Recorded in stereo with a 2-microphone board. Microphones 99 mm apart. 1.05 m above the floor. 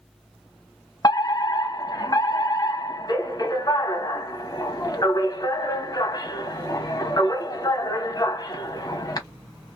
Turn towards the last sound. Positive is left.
turn(degrees=40)  # may be behind; listen again after turning